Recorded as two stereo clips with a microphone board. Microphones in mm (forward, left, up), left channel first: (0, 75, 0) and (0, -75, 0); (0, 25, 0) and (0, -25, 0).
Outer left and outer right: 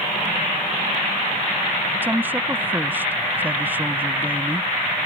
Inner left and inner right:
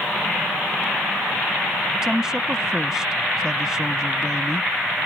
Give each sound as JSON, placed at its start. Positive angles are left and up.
{"t": 2.0, "sound": "a woman speaking", "side_deg": -10}